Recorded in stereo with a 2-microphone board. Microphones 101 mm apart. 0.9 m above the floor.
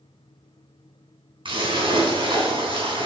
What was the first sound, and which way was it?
A splash, 55° right (ahead or behind).